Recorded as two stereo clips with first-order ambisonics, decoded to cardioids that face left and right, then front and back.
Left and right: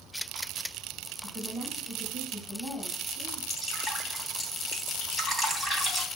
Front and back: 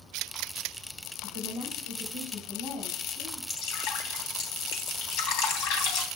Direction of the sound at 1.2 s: 15° left.